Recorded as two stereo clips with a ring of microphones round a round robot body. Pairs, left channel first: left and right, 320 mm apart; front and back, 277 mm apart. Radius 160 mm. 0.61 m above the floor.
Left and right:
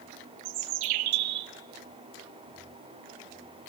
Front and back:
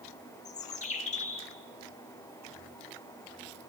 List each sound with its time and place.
0.5 s a bird: 70° right, 0.8 m